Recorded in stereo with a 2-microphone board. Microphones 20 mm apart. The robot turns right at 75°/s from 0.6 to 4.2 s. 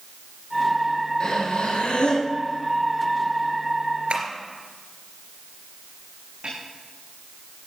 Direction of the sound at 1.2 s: 45° left.